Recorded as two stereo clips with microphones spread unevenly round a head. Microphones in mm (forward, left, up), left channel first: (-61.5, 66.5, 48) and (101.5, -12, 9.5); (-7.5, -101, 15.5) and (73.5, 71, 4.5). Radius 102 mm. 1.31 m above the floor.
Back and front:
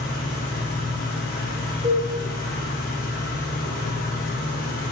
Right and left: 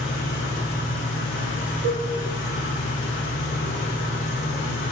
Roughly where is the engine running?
Behind.